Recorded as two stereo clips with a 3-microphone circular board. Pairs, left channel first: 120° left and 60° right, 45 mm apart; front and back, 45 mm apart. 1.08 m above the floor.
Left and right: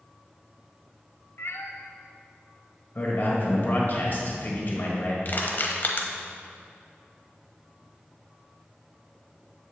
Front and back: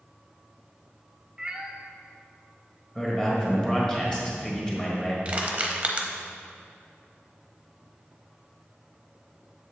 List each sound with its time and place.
1.4 s a cat meowing: 110° left, 0.6 m
3.0 s a man speaking: 75° left, 1.6 m
5.2 s crushing: 135° left, 0.8 m